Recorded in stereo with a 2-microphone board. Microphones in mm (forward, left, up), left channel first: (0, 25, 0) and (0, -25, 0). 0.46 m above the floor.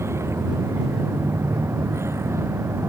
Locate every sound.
0.0 s a vehicle: 65° right (ahead or behind)